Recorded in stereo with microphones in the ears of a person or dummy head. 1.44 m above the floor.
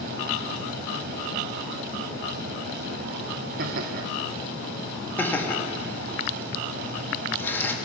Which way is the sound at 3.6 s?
55° right (ahead or behind).